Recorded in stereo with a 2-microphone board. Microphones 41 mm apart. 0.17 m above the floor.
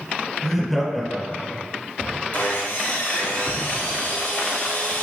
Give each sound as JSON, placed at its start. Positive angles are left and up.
{"t": 0.4, "sound": "laughter", "side_deg": -5, "distance_m": 1.5}
{"t": 2.3, "sound": "sawing", "side_deg": 65, "distance_m": 1.7}